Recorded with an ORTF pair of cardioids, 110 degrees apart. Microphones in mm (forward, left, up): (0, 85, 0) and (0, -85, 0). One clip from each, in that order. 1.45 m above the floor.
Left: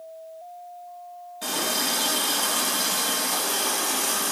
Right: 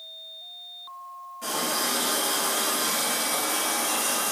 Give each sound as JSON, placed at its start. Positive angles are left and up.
{"t": 1.4, "sound": "a running tap", "azimuth_deg": 40, "distance_m": 1.3}